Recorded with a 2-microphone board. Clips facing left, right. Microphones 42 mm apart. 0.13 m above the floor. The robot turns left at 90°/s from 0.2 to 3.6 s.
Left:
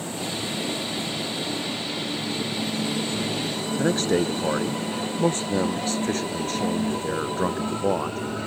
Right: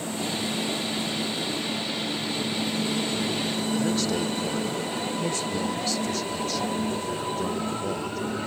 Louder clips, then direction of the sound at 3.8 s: Left 7 dB; 45° left (ahead or behind).